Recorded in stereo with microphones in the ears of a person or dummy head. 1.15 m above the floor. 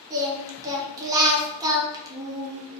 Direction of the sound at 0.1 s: 15° right (ahead or behind).